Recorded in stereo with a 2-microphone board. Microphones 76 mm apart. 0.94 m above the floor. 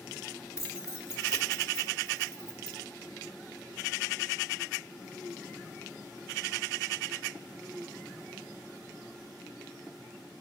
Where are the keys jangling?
35° left (ahead or behind), 1.8 m.